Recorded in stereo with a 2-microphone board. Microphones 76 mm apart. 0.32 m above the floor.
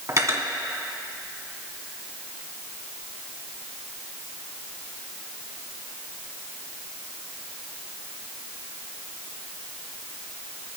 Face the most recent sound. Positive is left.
turn(degrees=-45)  # may be behind; listen again after turning